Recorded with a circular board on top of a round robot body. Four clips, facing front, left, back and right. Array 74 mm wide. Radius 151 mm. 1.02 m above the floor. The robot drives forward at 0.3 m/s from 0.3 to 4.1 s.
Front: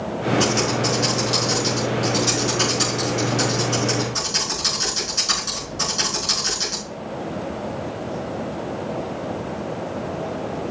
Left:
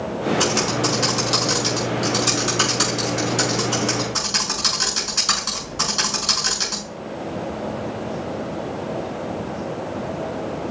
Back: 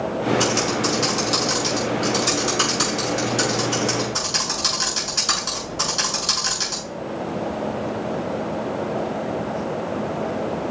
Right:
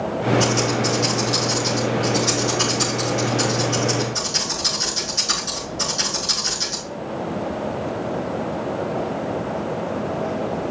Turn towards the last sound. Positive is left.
turn(degrees=125)